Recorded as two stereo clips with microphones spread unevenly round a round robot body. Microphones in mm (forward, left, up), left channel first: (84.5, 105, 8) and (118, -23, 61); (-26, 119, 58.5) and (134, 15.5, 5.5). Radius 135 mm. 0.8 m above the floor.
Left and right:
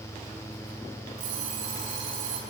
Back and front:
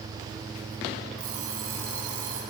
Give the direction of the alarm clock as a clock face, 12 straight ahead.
2 o'clock.